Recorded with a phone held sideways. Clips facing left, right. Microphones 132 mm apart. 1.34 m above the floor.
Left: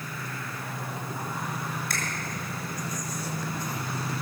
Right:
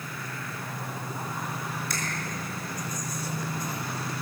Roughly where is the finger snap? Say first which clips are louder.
Left 1 dB; left.